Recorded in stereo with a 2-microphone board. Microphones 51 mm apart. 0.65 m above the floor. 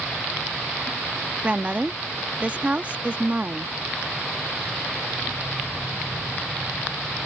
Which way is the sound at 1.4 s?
30° right (ahead or behind).